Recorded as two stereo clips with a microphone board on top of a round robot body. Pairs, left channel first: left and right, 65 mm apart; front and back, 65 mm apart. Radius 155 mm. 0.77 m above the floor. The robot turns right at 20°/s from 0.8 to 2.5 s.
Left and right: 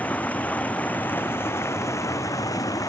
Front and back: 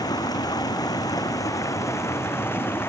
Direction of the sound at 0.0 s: 20° left.